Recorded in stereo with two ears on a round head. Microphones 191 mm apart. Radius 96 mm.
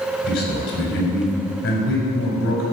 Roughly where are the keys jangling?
I don't hear keys jangling.